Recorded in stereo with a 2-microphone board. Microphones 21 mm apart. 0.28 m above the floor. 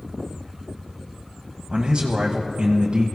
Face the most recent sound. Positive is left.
turn(degrees=-40)  # may be behind; listen again after turning